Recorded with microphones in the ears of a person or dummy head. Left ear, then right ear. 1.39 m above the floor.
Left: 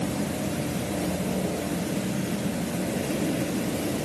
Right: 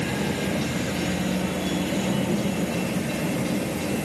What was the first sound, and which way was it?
Only background noise.